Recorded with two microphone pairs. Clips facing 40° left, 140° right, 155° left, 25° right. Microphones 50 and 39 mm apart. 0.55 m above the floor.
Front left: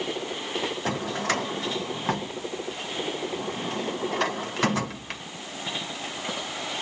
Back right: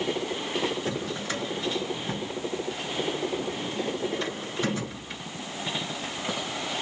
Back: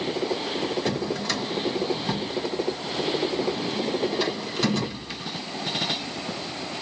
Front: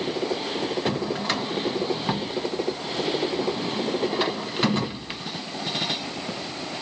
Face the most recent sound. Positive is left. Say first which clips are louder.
# front left 3 dB, front 1 dB
turn(degrees=35)